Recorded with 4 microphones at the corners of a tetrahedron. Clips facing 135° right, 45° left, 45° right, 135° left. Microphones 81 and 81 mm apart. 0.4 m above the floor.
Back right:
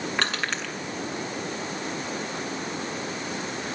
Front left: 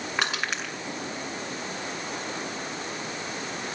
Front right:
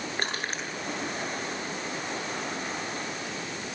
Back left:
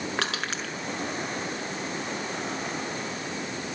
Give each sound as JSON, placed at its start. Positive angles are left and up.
{"t": 0.2, "sound": "crushing", "azimuth_deg": 125, "distance_m": 6.0}